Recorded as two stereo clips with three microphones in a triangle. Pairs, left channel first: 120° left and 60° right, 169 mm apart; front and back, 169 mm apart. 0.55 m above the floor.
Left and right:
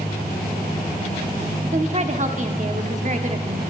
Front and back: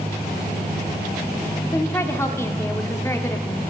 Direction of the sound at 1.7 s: 70° right.